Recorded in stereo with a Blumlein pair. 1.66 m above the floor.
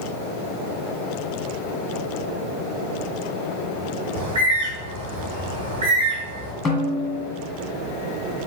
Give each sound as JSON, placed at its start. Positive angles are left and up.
{"t": 4.2, "sound": "a bird", "azimuth_deg": -60, "distance_m": 2.5}
{"t": 6.7, "sound": "a snare drum", "azimuth_deg": 20, "distance_m": 1.7}